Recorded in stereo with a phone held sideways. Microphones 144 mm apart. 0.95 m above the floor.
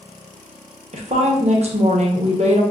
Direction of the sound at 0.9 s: 50° right (ahead or behind).